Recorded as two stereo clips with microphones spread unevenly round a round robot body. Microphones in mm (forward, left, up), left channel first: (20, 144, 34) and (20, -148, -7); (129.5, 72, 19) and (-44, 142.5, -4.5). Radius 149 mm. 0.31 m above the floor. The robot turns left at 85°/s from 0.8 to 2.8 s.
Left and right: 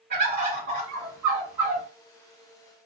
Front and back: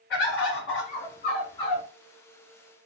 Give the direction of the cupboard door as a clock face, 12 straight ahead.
I don't hear a cupboard door.